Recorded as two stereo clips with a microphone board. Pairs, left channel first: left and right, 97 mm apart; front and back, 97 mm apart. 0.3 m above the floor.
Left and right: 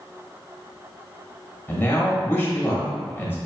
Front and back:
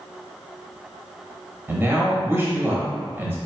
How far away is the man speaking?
About 1.1 m.